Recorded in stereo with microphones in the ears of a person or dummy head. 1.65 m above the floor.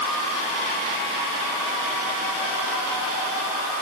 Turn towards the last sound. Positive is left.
No sound to turn to.